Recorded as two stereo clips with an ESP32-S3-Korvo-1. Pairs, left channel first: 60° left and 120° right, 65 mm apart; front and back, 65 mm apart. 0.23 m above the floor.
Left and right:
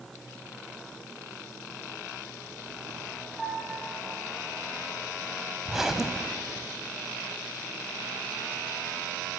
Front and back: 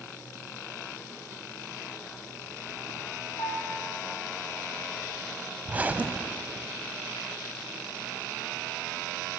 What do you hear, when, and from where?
3.4 s a piano: 30° right, 6 m
5.7 s a zipper: 165° left, 1.1 m